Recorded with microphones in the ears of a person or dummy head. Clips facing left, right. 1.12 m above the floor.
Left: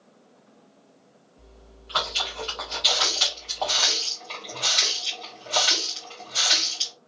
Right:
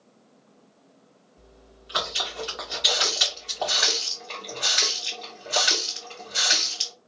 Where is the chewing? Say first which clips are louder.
Even; 20° right (ahead or behind), 1.8 m.